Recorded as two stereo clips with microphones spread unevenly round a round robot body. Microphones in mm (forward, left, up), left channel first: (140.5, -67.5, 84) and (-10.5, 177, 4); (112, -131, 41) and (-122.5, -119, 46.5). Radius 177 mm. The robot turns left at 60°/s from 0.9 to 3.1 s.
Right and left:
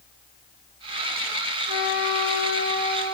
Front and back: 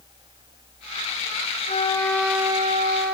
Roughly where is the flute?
Ahead right.